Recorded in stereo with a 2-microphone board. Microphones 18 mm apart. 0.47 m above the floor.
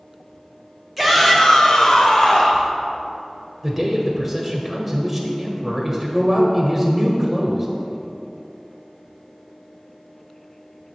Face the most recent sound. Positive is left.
turn(degrees=-5)  # may be behind; listen again after turning